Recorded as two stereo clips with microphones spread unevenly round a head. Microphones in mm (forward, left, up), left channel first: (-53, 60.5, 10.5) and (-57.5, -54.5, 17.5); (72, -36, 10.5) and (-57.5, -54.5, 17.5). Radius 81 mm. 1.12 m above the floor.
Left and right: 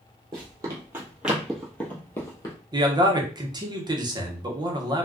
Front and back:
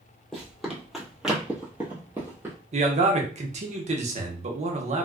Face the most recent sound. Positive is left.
turn(degrees=-145)